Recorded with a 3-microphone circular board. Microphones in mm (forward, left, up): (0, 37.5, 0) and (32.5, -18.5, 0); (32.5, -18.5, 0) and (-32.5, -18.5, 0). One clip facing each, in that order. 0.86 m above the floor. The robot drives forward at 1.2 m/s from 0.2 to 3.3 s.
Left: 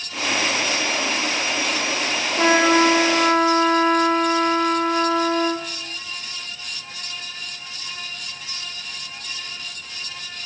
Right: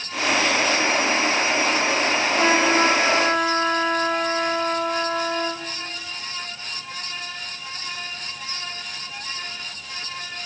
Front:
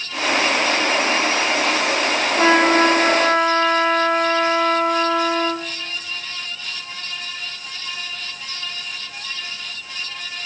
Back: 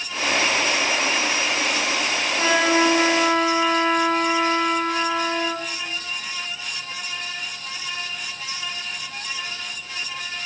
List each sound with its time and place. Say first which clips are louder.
2.4 s a trumpet: left 4 dB, front 4 dB; 65° left, 3.5 m; by 5.7 s 85° left, 3 m